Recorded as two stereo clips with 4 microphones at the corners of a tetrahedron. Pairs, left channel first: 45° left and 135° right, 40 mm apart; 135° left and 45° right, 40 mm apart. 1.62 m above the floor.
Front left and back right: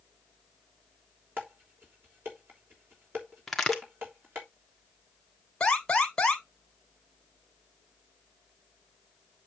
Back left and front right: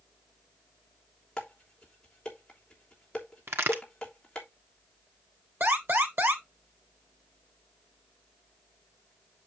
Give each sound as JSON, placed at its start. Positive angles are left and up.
{"t": 1.4, "sound": "dishes clattering", "azimuth_deg": -155, "distance_m": 3.0}
{"t": 3.5, "sound": "a crack", "azimuth_deg": -40, "distance_m": 1.4}
{"t": 5.6, "sound": "an alarm", "azimuth_deg": -25, "distance_m": 2.0}